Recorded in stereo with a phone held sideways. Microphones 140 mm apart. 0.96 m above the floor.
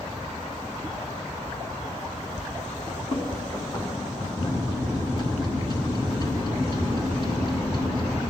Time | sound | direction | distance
2.9 | running footsteps | 55° left (ahead or behind) | 5 m
4.4 | a microwave | 30° left (ahead or behind) | 1.2 m